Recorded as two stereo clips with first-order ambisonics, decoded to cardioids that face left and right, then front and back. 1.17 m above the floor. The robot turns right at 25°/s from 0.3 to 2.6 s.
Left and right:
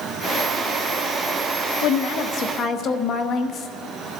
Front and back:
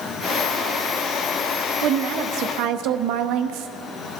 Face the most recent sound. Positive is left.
turn(degrees=145)